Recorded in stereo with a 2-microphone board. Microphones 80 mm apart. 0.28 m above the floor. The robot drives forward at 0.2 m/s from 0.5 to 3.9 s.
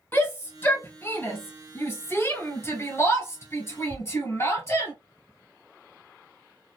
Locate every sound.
0.1 s a shout: 25° left (ahead or behind), 1.9 m; by 4.9 s 35° left (ahead or behind), 1.6 m